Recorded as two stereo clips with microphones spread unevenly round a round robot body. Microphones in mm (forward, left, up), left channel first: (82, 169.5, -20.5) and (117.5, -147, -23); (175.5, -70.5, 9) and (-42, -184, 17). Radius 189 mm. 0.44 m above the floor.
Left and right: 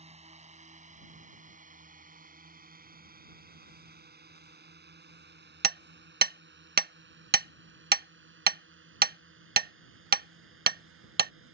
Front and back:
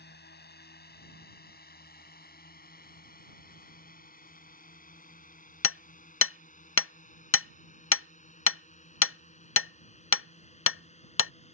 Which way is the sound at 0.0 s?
15° right.